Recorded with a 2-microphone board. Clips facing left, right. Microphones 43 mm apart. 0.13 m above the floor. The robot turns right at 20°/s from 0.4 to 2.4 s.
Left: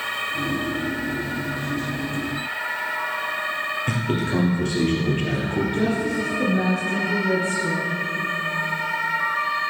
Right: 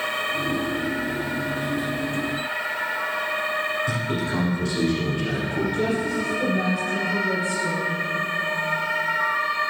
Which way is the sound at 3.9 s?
50° left (ahead or behind).